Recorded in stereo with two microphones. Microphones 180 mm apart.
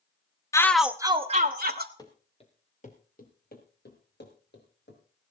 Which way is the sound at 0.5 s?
15° left (ahead or behind).